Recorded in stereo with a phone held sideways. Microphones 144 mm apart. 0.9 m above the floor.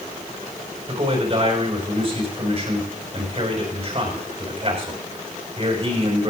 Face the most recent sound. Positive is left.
turn(degrees=-40)  # may be behind; listen again after turning